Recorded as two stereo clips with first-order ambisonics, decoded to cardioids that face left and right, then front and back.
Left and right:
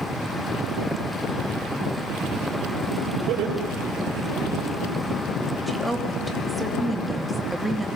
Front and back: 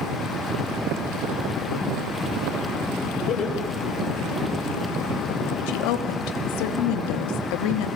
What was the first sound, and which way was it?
Laughter, 55° right.